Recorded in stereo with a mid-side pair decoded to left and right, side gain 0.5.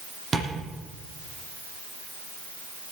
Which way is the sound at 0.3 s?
30° right.